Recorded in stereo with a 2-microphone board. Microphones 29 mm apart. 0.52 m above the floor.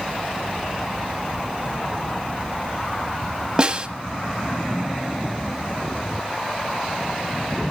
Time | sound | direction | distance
3.6 | a snare drum | 30° right (ahead or behind) | 1.1 m